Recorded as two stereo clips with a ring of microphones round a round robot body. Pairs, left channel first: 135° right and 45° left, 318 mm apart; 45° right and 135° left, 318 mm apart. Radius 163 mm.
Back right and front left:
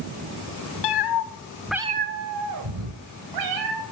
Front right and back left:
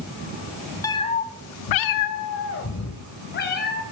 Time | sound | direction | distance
0.8 | a cat meowing | 125° right | 1.1 m